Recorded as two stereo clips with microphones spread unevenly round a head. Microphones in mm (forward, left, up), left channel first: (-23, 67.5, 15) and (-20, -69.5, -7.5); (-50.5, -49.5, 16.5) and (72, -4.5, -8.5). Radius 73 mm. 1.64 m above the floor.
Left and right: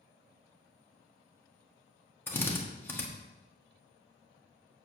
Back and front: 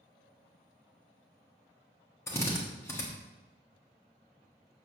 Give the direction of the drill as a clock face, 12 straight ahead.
7 o'clock.